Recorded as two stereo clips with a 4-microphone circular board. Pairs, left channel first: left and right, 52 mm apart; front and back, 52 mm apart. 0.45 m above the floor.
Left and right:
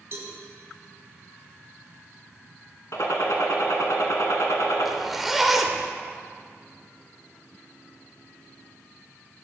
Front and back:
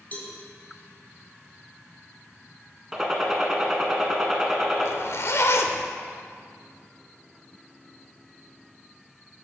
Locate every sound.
0.1 s a cowbell: 55° right, 1.7 m
2.9 s a gunshot: 100° left, 1.1 m
4.8 s a zipper: 5° right, 0.6 m